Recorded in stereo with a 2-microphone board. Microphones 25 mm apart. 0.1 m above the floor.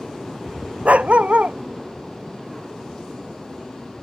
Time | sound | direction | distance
0.8 | a dog barking | 70° right (ahead or behind) | ?